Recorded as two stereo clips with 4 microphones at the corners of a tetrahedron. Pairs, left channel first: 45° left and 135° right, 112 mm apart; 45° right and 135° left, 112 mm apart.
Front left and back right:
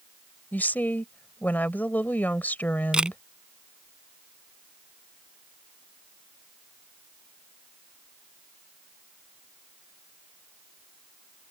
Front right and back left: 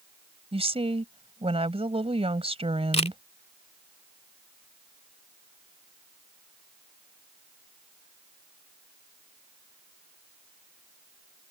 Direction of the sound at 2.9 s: 55° right.